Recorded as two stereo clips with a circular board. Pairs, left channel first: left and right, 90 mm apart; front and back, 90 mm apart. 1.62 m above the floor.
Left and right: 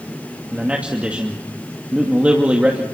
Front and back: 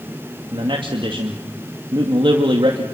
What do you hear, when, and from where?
0.5 s a man speaking: 165° right, 2.5 m